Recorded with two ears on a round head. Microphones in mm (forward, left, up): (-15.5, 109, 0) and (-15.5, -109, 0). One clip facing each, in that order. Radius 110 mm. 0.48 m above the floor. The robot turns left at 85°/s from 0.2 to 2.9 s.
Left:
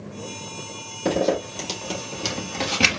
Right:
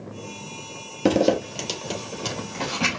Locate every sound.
1.1 s a zipper: 70° right (ahead or behind), 1.8 m; by 3.0 s 80° left, 1.8 m